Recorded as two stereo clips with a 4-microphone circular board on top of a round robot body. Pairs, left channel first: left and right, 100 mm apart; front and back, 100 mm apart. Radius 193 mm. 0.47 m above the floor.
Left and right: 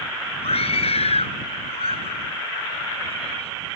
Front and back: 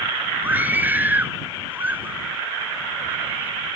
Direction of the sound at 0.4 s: 105° left.